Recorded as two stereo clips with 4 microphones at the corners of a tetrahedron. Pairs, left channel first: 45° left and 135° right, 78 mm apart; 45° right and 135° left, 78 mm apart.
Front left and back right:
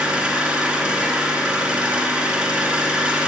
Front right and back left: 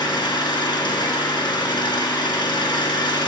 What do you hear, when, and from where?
0.0 s an engine running: 65° right, 1.9 m